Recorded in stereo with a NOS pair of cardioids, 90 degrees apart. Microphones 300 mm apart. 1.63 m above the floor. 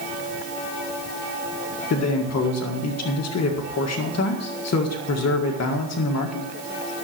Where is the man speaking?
55° left, 1.8 m.